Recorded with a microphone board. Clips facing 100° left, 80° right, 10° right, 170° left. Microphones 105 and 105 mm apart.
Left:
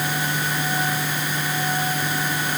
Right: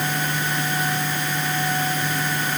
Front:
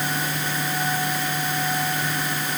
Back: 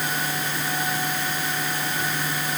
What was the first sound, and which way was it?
Only background noise.